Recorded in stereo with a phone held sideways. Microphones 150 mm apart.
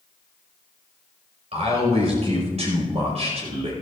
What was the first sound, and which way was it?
A man speaking, 50° right (ahead or behind).